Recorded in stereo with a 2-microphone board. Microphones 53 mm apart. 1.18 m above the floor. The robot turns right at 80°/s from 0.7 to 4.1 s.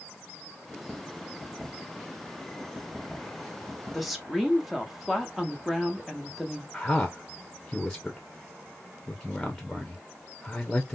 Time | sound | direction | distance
3.9 | a woman speaking | 5° left (ahead or behind) | 0.8 m
6.7 | a man speaking | 10° left (ahead or behind) | 0.6 m